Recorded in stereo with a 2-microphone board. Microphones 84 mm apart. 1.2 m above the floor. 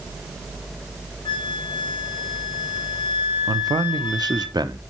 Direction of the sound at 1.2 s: 75° left (ahead or behind).